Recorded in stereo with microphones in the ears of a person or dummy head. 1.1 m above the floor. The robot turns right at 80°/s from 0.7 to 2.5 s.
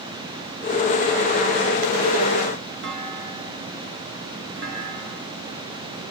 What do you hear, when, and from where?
2.8 s a clunk: 65° right (ahead or behind), 4 m